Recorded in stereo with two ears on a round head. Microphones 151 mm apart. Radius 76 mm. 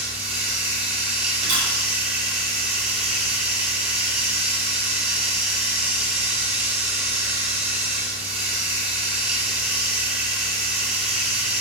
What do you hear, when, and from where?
0.0 s running water: 10° right (ahead or behind), 8.5 m
1.4 s a camera shutter: 50° right (ahead or behind), 7.5 m